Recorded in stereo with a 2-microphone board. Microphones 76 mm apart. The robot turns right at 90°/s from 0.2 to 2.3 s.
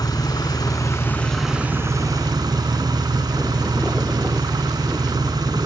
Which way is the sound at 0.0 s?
70° left.